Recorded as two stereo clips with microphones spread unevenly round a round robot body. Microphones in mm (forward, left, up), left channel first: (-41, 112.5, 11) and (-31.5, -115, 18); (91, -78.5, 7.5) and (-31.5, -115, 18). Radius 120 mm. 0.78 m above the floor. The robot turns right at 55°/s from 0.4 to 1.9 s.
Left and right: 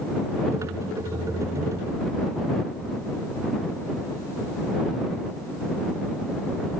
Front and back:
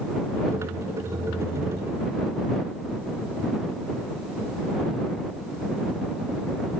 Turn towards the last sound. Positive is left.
No sound to turn to.